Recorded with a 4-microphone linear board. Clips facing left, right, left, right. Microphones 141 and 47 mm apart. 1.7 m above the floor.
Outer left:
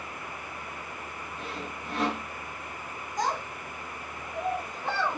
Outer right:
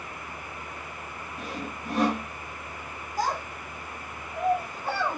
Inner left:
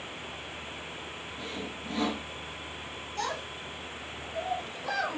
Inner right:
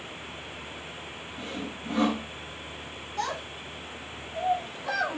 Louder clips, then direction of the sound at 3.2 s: Outer right 1 dB, inner right 2 dB; 5° right (ahead or behind).